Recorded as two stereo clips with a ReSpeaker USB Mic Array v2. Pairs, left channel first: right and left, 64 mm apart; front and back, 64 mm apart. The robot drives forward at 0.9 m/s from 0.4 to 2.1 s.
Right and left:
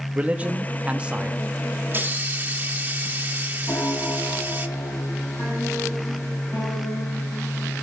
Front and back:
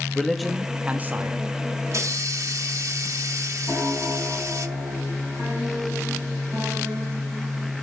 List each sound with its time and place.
0.1 s a man speaking: 90° left, 1.1 m; by 1.4 s 155° left, 1.4 m
1.9 s a hiss: 145° left, 0.7 m; by 4.7 s 150° left, 0.9 m
3.7 s a piano: 125° right, 4.5 m